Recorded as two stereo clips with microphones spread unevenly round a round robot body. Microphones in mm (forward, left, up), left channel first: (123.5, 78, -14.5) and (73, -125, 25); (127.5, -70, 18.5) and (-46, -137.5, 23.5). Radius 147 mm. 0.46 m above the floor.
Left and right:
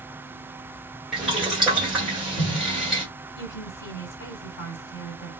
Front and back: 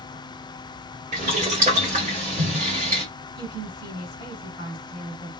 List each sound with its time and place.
1.1 s boiling: 160° left, 1.5 m
3.4 s a woman speaking: 90° left, 2.5 m